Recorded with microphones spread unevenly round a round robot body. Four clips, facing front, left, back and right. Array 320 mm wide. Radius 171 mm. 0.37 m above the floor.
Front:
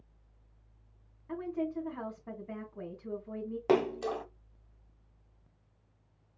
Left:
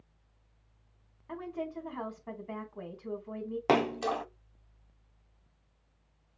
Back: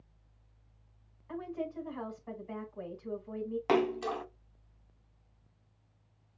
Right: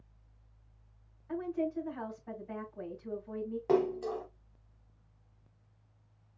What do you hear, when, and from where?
1.3 s a woman speaking: 35° left, 3.5 m
3.7 s a splash: 105° left, 0.6 m